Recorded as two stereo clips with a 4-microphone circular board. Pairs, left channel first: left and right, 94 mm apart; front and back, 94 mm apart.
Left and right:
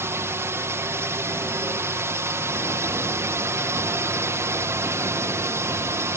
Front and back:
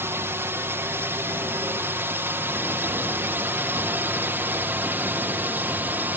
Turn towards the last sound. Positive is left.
turn(degrees=-125)